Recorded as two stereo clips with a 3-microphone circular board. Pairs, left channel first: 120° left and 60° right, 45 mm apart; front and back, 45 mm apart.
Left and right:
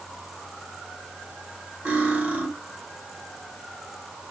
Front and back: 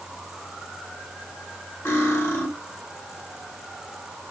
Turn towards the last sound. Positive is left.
turn(degrees=-10)